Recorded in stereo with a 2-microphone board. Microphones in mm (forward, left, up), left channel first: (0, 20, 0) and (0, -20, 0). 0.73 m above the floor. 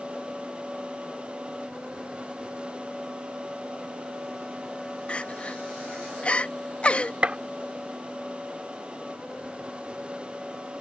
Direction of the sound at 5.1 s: 30° left (ahead or behind).